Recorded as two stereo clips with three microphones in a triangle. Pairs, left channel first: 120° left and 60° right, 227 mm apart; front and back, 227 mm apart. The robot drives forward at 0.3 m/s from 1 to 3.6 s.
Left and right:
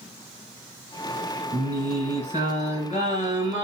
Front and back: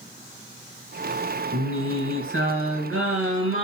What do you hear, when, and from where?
1.5 s singing: 175° left, 3 m